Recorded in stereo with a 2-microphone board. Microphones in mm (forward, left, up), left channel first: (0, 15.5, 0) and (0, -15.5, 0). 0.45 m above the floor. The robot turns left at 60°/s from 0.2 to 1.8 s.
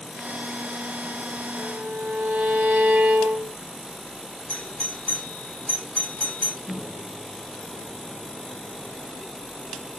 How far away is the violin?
About 0.7 m.